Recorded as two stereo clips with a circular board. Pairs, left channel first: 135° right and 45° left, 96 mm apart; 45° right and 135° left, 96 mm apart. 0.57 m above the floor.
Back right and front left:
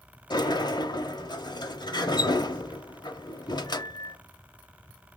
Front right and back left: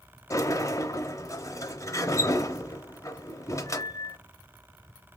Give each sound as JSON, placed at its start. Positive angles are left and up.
{"t": 0.3, "sound": "a sliding door", "azimuth_deg": -100, "distance_m": 0.9}